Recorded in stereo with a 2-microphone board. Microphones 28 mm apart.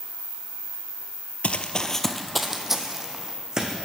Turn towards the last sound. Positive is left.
turn(degrees=-25)  # may be behind; listen again after turning